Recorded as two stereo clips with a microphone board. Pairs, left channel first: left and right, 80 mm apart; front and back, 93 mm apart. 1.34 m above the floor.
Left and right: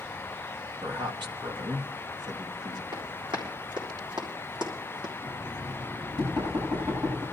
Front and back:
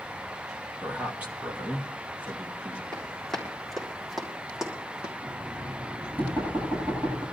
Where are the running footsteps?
85° right, 4 m; by 5.1 s 100° right, 3 m.